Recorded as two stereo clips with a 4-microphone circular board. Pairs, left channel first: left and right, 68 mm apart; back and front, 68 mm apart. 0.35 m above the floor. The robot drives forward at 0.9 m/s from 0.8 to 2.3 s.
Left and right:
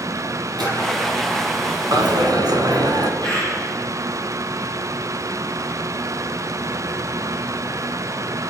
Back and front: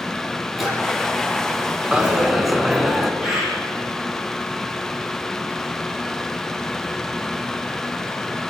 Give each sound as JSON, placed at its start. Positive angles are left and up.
{"t": 0.6, "sound": "a drawer", "azimuth_deg": -90, "distance_m": 5.5}
{"t": 1.9, "sound": "a dropped coin", "azimuth_deg": -75, "distance_m": 1.5}
{"t": 3.2, "sound": "a bird", "azimuth_deg": -80, "distance_m": 7.5}